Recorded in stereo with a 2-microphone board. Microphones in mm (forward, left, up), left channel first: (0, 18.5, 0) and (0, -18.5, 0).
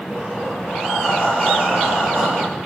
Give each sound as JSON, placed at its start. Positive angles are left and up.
{"t": 0.1, "sound": "breathing", "side_deg": 50, "distance_m": 4.5}